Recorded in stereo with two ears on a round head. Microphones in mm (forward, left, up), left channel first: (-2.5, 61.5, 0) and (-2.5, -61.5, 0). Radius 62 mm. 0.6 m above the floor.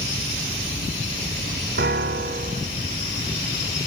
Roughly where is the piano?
Right.